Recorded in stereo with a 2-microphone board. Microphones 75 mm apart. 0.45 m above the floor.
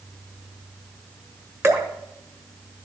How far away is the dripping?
About 1.1 m.